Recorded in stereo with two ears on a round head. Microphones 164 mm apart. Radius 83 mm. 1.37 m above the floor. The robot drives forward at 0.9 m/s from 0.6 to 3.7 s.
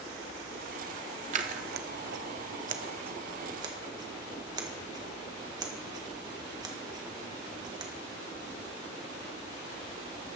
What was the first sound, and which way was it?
Scissors, 40° right (ahead or behind).